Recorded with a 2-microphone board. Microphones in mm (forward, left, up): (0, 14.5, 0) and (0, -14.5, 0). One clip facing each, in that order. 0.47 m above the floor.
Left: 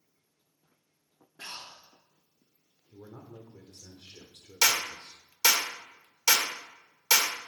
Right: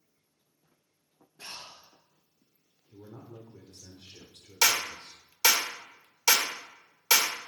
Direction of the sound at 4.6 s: 15° right (ahead or behind).